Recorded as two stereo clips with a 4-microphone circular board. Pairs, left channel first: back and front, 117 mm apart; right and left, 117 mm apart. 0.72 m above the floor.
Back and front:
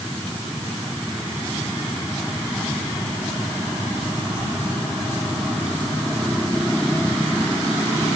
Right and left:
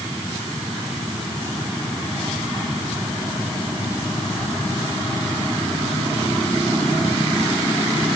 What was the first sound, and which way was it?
Only background noise.